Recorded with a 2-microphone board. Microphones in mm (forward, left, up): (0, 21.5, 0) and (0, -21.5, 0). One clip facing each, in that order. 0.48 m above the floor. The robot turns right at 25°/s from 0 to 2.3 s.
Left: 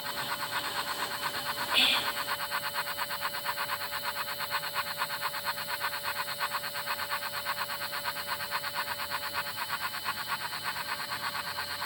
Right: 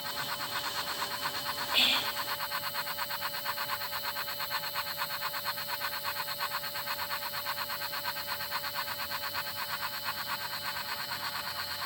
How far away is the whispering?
About 2 m.